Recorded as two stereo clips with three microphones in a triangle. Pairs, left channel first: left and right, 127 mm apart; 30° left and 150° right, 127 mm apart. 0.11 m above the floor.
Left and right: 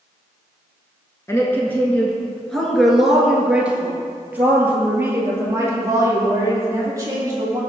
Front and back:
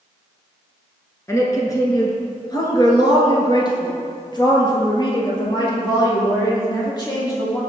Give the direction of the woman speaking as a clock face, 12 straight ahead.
10 o'clock.